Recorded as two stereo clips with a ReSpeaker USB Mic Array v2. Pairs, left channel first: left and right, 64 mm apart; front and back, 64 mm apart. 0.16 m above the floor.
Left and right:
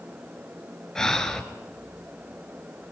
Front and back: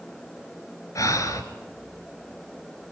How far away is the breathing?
About 2.5 m.